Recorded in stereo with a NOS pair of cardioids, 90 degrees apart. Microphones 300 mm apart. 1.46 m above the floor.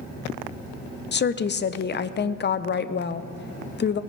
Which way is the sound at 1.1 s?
35° left.